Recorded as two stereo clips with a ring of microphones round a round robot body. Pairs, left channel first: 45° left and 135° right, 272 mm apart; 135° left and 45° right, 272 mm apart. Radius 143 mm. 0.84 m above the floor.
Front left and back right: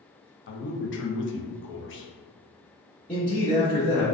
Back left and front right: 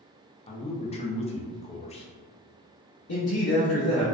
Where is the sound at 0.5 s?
75° left, 0.5 m.